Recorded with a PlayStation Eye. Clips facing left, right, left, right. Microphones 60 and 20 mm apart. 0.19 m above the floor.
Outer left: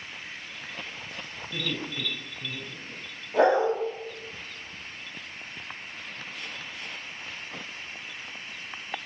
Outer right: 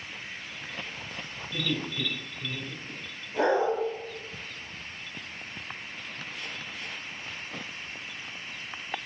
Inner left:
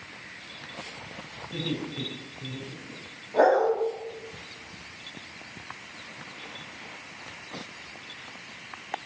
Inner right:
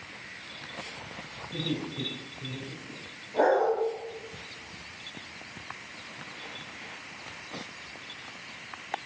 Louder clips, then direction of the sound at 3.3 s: Outer left 3 dB, inner left 3 dB; 60° left (ahead or behind).